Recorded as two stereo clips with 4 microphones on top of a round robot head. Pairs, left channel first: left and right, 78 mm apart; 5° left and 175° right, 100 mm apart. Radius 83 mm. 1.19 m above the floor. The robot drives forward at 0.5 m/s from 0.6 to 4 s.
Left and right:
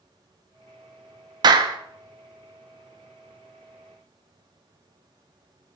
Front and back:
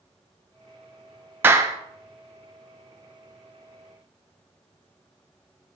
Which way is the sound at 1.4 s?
105° right.